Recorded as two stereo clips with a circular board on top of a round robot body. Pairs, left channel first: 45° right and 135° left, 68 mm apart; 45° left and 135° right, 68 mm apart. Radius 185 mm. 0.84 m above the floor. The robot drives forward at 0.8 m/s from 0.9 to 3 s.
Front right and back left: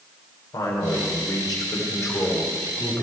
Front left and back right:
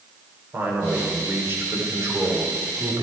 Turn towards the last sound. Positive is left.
turn(degrees=-100)